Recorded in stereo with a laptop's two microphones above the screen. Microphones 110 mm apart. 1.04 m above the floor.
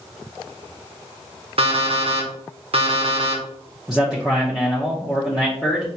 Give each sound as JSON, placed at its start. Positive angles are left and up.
{"t": 1.6, "sound": "an alarm clock", "side_deg": -60, "distance_m": 1.0}
{"t": 3.9, "sound": "a man speaking", "side_deg": -5, "distance_m": 1.1}